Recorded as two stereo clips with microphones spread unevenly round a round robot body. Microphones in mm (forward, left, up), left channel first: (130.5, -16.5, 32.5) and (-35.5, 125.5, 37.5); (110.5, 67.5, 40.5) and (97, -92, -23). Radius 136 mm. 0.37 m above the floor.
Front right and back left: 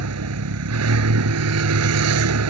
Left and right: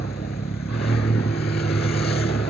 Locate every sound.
0.0 s a vehicle: 145° left